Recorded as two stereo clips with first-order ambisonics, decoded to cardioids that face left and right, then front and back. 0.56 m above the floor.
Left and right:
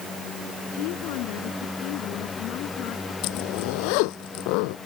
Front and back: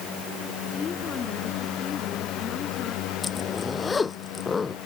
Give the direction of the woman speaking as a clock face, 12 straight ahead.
10 o'clock.